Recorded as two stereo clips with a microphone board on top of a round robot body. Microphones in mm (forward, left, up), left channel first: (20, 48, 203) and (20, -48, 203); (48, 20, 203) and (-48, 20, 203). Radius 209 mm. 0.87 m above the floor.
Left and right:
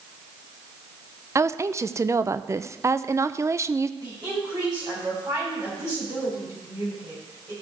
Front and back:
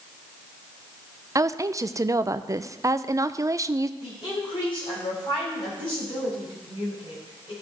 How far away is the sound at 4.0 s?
About 6 m.